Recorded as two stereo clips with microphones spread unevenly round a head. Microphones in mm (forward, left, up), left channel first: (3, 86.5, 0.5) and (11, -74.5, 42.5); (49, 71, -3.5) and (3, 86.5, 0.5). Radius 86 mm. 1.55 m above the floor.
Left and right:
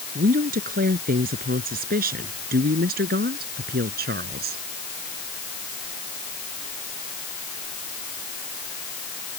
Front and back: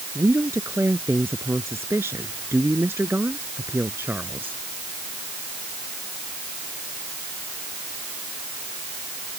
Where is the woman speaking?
130° right; by 4.6 s 120° right.